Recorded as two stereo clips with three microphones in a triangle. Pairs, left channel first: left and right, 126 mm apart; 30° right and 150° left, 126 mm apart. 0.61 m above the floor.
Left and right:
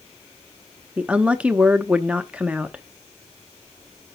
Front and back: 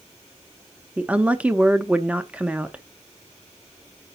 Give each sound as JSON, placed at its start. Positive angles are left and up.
{"t": 1.0, "sound": "a woman speaking", "azimuth_deg": -150, "distance_m": 0.6}